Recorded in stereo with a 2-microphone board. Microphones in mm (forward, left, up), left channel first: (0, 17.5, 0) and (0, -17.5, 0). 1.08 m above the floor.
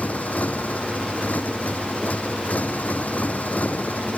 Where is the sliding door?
No sliding door in this recording.